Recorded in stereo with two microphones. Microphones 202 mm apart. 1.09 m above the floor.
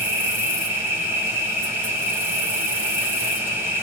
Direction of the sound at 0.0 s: 10° right (ahead or behind).